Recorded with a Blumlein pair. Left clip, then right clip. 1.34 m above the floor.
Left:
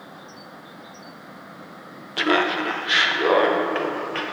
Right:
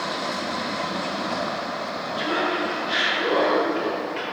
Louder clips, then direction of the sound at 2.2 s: Left 4 dB; 60° left.